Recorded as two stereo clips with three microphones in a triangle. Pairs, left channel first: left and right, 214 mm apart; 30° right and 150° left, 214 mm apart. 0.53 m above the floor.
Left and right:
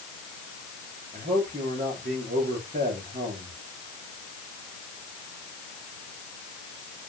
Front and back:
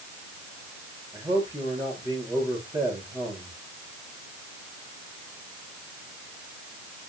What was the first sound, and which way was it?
A man speaking, 140° right.